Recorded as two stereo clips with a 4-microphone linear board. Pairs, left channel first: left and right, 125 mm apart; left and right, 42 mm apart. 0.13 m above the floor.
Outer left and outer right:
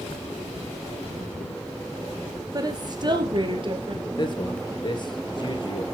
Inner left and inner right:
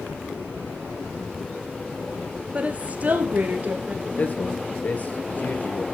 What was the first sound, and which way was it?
A woman speaking, 30° right (ahead or behind).